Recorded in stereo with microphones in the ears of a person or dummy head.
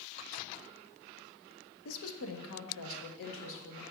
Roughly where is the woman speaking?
Left.